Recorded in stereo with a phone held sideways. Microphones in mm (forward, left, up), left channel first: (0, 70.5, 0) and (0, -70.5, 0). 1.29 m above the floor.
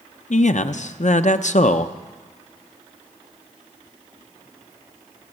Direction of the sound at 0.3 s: 60° left (ahead or behind).